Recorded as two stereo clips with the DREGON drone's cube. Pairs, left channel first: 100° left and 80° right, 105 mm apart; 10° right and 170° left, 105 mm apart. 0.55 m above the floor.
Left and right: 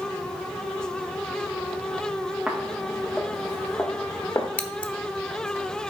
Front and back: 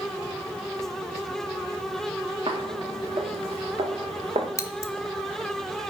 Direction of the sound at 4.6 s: 35° left.